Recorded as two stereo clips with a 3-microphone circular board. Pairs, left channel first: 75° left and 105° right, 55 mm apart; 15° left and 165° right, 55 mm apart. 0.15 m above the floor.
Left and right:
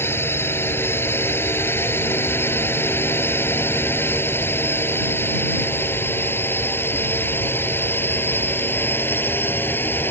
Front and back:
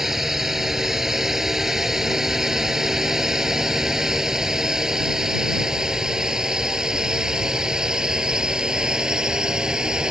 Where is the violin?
I don't hear a violin.